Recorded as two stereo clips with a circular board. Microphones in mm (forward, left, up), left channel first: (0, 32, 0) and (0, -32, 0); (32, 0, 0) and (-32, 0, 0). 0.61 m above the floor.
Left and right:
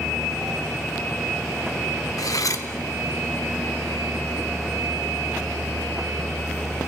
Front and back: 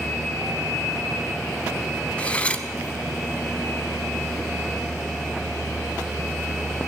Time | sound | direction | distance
2.2 | cutlery clinking | 70° left | 0.7 m